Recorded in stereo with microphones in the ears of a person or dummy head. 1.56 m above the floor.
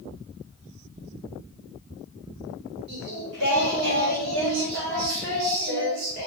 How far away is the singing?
About 3.5 m.